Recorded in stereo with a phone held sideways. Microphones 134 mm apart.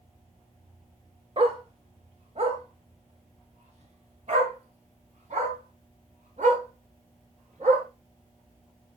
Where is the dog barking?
45° right (ahead or behind), 1.2 m; by 7.8 s 65° right (ahead or behind), 5 m.